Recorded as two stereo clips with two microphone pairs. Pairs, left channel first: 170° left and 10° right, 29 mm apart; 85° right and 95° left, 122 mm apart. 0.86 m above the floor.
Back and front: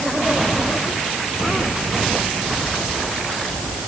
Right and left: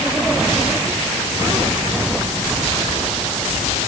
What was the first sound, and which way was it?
Only background noise.